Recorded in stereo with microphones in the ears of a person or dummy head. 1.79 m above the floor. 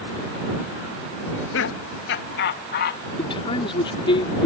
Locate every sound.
1.2 s laughter: 80° left; by 3.0 s 65° left (ahead or behind)
3.2 s a man speaking: 25° left (ahead or behind)